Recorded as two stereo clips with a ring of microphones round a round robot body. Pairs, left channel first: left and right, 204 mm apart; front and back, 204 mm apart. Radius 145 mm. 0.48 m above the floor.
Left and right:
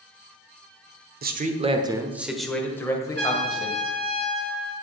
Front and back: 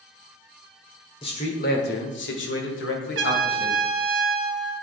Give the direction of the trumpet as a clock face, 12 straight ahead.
7 o'clock.